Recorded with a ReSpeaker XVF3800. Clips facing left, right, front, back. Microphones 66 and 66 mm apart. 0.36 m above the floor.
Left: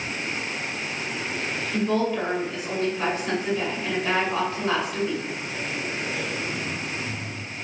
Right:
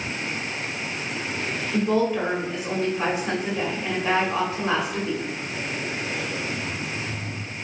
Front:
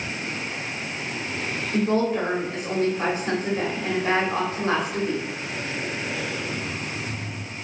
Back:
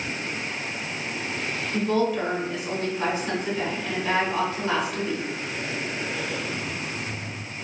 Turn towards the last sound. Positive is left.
turn(degrees=-20)